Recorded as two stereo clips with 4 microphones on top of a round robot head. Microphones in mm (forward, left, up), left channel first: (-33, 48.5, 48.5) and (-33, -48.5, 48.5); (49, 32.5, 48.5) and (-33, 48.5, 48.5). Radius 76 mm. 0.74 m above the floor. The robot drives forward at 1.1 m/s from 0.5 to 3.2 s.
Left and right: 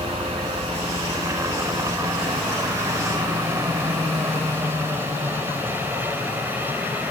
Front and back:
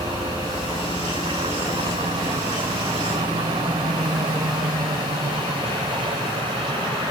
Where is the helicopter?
140° right; by 7.1 s 160° right.